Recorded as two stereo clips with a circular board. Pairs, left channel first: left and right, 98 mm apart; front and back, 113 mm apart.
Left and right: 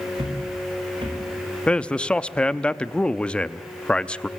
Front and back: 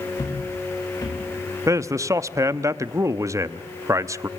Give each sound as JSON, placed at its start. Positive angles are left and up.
{"t": 0.1, "sound": "footsteps", "azimuth_deg": -55, "distance_m": 6.0}
{"t": 1.7, "sound": "a man speaking", "azimuth_deg": 160, "distance_m": 0.6}